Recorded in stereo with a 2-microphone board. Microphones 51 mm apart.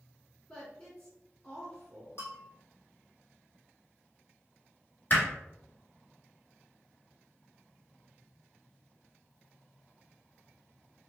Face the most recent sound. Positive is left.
turn(degrees=40)  # may be behind; listen again after turning